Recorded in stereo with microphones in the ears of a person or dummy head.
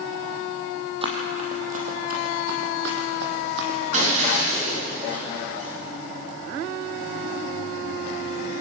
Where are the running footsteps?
35° right (ahead or behind), 3 m; by 3.8 s 65° right (ahead or behind), 3.5 m.